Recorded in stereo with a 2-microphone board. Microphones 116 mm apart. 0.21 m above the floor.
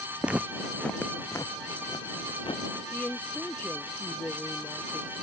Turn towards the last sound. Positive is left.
turn(degrees=15)  # may be behind; listen again after turning